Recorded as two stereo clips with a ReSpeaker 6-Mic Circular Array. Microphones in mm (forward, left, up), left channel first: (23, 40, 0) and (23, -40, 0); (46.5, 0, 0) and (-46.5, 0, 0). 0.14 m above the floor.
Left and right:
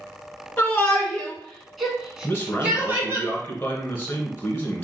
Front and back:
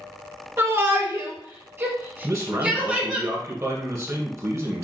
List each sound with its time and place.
0.6 s a shout: 145° left, 1.9 m; by 3.2 s 110° right, 1.7 m
2.2 s a man speaking: 145° left, 1.8 m